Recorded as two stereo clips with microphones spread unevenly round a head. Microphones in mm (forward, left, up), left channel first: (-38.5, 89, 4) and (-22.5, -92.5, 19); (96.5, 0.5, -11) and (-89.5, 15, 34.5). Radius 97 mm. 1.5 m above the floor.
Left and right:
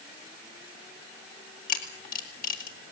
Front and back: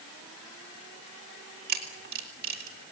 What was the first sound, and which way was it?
A camera shutter, 140° left.